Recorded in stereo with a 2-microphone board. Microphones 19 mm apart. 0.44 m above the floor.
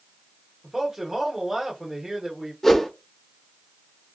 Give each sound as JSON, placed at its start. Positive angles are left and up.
{"t": 0.6, "sound": "a man speaking", "side_deg": -25, "distance_m": 1.1}
{"t": 2.6, "sound": "a whoosh", "side_deg": 20, "distance_m": 0.9}